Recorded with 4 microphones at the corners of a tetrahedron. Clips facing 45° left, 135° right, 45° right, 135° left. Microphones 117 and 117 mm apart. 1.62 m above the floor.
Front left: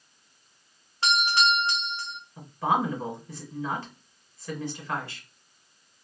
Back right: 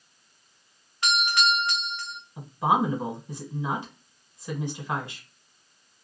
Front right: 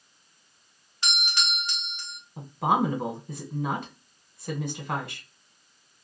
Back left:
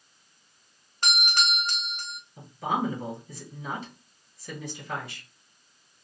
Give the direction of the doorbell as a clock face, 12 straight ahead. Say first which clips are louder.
Front left 1 dB, back left 4 dB; 9 o'clock.